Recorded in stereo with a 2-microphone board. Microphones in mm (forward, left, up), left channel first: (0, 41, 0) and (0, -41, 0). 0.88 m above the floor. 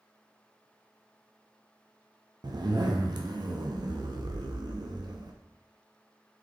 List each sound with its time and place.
2.4 s a zipper: 60° right (ahead or behind), 0.5 m